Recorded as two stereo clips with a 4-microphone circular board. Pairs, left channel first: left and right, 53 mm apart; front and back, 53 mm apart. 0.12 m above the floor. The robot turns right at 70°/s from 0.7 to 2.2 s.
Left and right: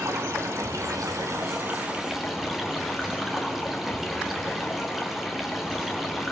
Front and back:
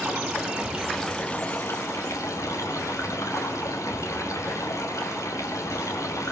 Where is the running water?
110° right, 4 m; by 6.3 s 5° right, 4 m.